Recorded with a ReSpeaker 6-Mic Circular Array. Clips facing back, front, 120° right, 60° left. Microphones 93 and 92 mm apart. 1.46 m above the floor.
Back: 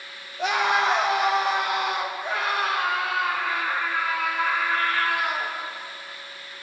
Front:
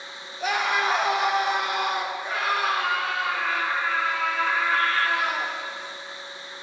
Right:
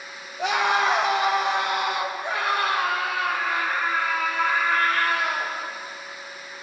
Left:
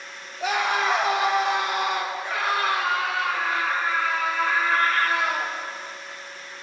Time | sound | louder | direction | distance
0.4 | a scream | back 2 dB, right 2 dB | 150° right | 2 m